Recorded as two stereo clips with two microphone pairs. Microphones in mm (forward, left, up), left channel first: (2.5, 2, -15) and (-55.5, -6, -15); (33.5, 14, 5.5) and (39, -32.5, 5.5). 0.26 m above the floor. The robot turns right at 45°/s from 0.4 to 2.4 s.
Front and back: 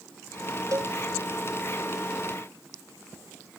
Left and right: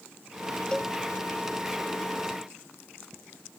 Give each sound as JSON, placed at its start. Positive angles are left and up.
{"t": 0.7, "sound": "a cowbell", "azimuth_deg": 165}